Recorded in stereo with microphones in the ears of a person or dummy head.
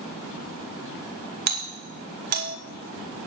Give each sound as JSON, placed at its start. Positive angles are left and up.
{"t": 1.5, "sound": "a doorbell", "side_deg": -55, "distance_m": 2.0}